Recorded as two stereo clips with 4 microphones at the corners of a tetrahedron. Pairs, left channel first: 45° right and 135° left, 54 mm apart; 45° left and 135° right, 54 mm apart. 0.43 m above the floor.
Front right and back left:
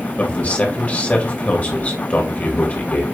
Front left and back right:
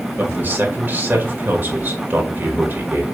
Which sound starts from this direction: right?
A man speaking, at 0.2 s.